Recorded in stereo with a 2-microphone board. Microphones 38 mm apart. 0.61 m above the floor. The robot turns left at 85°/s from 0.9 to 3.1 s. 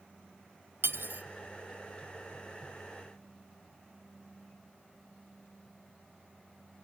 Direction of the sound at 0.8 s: 70° right (ahead or behind).